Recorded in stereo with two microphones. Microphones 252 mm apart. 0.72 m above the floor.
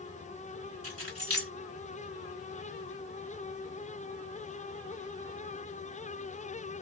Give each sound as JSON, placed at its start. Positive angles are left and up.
{"t": 0.8, "sound": "keys jangling", "side_deg": -75, "distance_m": 1.6}